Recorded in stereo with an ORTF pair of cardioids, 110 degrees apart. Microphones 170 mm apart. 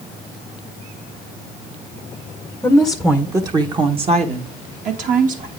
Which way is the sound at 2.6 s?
10° left.